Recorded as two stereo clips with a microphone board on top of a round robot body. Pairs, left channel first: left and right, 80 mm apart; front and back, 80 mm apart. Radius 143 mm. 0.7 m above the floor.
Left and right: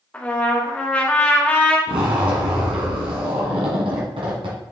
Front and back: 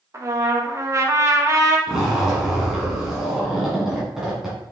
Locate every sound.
0.1 s a trumpet: 155° left, 1.4 m
1.9 s a zipper: 95° right, 1.8 m